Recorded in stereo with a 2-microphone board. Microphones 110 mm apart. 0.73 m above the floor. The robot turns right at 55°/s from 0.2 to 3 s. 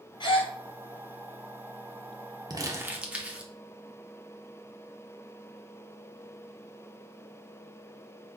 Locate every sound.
0.2 s a gasp: 45° left (ahead or behind), 1.3 m; by 0.5 s 60° left (ahead or behind), 1.3 m
2.5 s crumpling: 40° right (ahead or behind), 0.8 m; by 3.5 s 10° right (ahead or behind), 0.8 m